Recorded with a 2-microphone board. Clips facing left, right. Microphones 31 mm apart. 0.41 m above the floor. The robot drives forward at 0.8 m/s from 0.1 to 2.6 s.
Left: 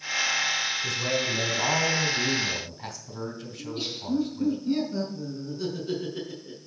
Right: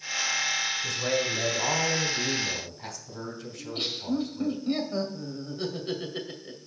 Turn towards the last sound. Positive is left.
turn(degrees=-55)  # may be behind; listen again after turning